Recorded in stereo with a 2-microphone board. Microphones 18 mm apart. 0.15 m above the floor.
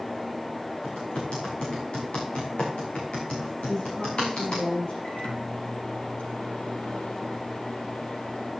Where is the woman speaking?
60° left (ahead or behind), 8 m.